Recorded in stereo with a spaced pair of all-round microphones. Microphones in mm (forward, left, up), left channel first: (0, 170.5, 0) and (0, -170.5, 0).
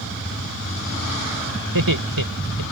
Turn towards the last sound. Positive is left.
turn(degrees=-80)